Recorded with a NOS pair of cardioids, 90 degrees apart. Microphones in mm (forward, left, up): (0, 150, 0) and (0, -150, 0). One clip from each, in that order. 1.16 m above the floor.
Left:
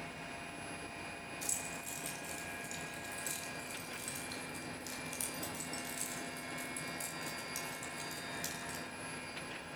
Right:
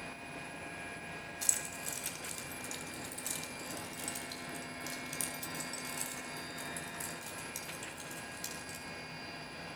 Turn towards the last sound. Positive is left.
turn(degrees=0)